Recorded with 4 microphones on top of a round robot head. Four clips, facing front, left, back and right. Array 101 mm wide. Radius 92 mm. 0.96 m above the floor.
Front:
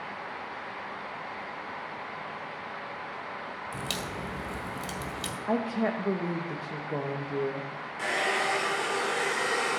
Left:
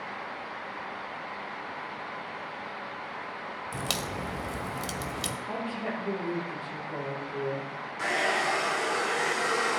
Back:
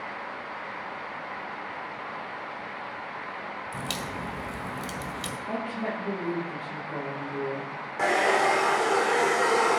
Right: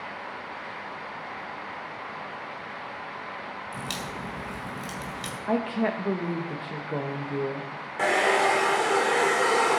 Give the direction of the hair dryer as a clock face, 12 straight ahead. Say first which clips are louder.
Right 6 dB, back 7 dB; 4 o'clock.